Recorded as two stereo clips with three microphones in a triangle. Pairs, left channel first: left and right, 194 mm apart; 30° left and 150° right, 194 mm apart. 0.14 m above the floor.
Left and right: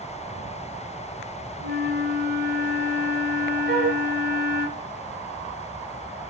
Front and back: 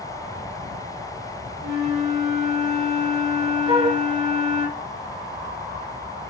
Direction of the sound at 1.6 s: 55° right.